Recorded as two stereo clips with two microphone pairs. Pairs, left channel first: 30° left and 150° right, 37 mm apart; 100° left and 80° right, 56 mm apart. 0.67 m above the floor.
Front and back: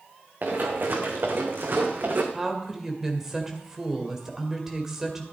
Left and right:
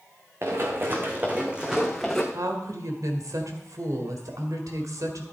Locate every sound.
0.4 s running footsteps: 120° right, 2.5 m; by 2.2 s straight behind, 2 m
2.3 s a woman speaking: 75° right, 2 m